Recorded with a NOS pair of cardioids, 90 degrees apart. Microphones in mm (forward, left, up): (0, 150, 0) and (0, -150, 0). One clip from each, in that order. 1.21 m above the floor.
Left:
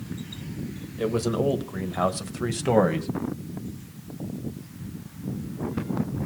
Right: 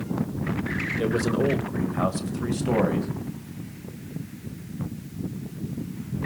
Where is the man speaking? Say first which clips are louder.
Left 1 dB; 5° right, 1.4 m; by 3.1 s 40° left, 1.4 m.